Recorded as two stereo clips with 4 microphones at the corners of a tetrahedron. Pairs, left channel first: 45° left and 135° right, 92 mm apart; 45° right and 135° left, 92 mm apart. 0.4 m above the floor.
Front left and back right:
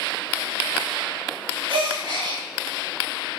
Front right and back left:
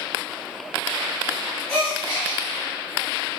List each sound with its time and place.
1.7 s a gasp: 110° right, 1.3 m